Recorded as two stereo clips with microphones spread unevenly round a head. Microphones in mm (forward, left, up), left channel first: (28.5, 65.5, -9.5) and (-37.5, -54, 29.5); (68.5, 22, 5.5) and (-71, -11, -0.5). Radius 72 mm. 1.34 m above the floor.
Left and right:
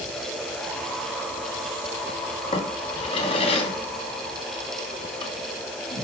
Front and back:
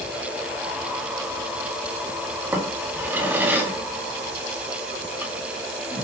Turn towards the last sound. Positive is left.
turn(degrees=115)